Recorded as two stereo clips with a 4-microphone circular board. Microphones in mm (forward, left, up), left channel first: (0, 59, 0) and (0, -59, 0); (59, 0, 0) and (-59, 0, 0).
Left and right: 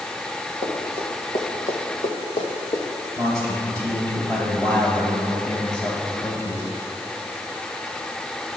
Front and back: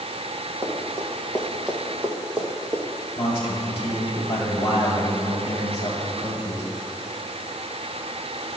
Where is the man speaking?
40° left, 2 m.